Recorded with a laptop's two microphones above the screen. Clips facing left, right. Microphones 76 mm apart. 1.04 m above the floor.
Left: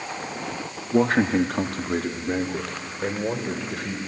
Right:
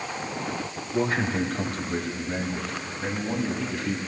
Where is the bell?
No bell in this recording.